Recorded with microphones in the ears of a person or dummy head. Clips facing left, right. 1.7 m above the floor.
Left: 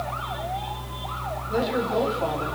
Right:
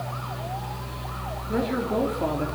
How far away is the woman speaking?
About 4 m.